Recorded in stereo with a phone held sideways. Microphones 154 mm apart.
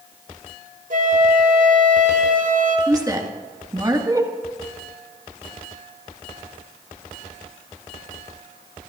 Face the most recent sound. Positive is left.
turn(degrees=-25)  # may be behind; listen again after turning